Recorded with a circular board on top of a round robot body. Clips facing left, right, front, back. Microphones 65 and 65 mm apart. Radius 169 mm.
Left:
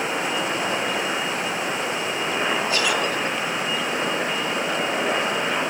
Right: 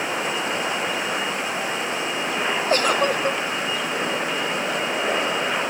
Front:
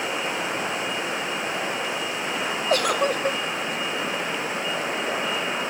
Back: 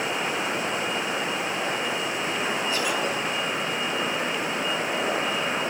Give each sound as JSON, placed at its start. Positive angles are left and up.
{"t": 2.7, "sound": "a giggle", "azimuth_deg": -40, "distance_m": 0.6}